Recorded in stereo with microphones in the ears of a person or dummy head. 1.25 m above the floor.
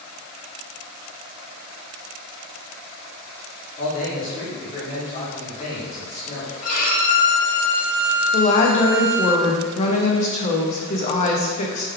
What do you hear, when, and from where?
3.8 s a man speaking: 40° left (ahead or behind), 1.2 m
6.6 s a violin: 50° left (ahead or behind), 1.5 m
8.3 s a woman speaking: 35° left (ahead or behind), 0.6 m